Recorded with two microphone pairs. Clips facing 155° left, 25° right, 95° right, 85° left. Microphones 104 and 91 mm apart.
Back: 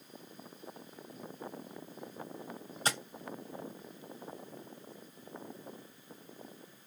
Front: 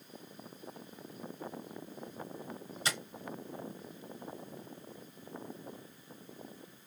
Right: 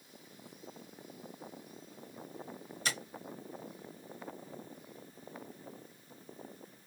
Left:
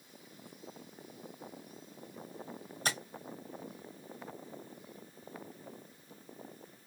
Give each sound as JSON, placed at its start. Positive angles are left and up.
{"t": 2.9, "sound": "tapping", "azimuth_deg": 120, "distance_m": 1.4}